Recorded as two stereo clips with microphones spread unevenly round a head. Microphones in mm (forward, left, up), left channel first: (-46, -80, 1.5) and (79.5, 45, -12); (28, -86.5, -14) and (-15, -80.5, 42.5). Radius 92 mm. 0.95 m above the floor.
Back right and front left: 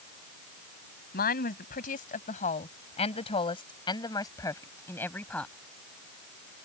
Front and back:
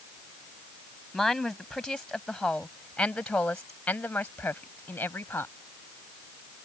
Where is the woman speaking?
100° right; by 5.5 s 50° right.